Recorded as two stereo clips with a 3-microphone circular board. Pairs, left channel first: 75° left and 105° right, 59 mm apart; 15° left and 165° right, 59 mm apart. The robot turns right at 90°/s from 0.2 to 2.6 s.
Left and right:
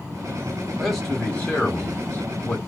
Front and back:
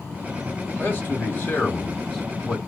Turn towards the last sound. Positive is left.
turn(degrees=140)